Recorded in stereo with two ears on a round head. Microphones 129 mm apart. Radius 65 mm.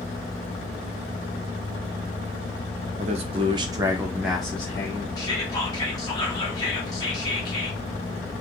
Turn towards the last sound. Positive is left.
turn(degrees=25)  # may be behind; listen again after turning